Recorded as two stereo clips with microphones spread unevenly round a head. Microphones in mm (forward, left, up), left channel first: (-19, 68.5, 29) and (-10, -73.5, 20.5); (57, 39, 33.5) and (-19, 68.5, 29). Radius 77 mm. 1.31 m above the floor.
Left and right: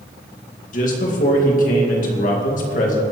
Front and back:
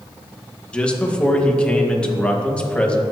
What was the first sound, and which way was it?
A man speaking, 55° left.